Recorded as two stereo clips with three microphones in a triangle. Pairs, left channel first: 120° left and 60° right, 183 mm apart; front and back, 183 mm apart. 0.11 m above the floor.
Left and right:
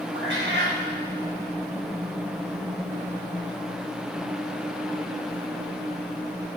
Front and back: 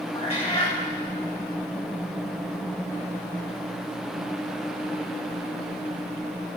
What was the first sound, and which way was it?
A cat meowing, 60° right.